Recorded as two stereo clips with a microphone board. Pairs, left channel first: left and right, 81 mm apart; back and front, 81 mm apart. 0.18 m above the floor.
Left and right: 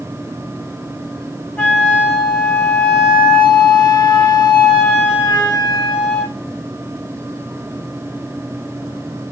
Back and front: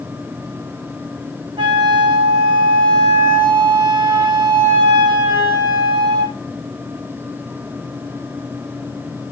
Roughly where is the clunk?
No clunk in this recording.